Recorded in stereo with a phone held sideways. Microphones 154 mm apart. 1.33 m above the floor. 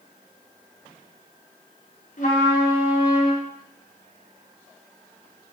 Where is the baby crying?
No baby crying in this recording.